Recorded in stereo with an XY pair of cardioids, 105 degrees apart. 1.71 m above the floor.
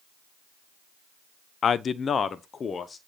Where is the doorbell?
I don't hear a doorbell.